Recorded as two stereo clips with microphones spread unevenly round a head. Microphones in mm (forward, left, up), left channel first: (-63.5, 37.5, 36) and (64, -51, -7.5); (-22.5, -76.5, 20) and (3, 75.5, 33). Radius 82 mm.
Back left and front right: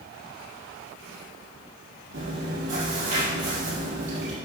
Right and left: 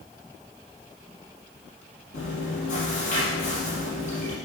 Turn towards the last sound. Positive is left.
turn(degrees=-55)